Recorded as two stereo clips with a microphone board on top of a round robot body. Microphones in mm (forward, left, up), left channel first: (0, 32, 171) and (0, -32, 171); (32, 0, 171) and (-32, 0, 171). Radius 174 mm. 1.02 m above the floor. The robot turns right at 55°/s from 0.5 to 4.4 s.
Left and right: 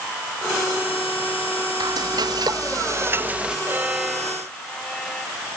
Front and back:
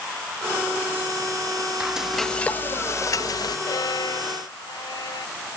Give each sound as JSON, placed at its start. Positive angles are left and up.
{"t": 1.8, "sound": "frying", "azimuth_deg": -110}
{"t": 3.7, "sound": "a violin", "azimuth_deg": -30}